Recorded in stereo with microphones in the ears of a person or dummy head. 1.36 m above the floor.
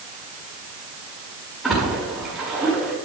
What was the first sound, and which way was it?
A splash, 5° right (ahead or behind).